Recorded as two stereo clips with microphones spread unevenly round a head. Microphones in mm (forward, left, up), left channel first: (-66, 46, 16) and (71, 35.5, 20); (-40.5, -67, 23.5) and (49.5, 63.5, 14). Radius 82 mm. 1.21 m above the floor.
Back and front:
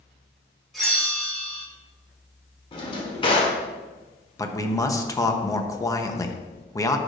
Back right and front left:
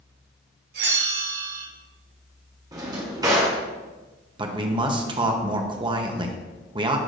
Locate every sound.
0.7 s a bell: 85° left, 3 m
2.7 s a drawer: 125° left, 1.6 m
4.4 s a man speaking: 115° left, 0.9 m